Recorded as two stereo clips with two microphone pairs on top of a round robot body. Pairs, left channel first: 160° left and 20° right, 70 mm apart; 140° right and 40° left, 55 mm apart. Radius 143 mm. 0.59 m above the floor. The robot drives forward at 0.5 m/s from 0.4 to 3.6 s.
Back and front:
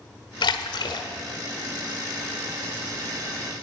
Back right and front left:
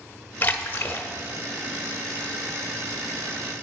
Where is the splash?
160° left, 0.7 m; by 1.1 s 170° left, 1.0 m.